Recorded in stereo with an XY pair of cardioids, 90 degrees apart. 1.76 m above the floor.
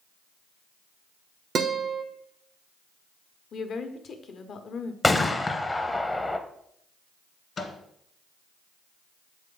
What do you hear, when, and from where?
1.6 s a guitar: 60° right, 0.7 m
3.5 s a woman speaking: 65° left, 0.9 m
5.0 s a gunshot: 15° left, 0.7 m
7.6 s a microwave: 50° left, 1.4 m